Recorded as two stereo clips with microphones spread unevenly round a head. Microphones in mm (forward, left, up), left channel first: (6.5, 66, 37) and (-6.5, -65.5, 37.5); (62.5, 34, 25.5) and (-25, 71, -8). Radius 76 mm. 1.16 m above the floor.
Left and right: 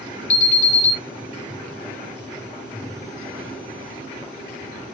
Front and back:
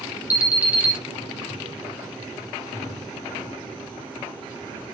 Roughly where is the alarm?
Left.